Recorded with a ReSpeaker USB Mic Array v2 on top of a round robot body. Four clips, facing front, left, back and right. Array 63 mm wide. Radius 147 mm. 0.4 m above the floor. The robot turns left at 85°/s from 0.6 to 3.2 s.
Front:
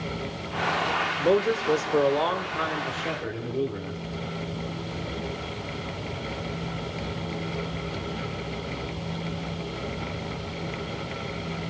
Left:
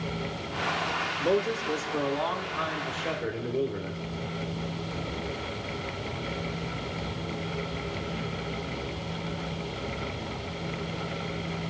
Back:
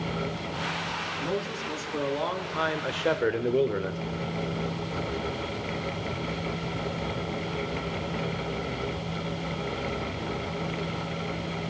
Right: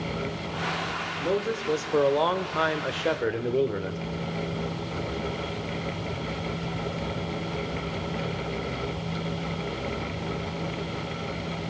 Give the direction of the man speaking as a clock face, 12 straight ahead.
11 o'clock.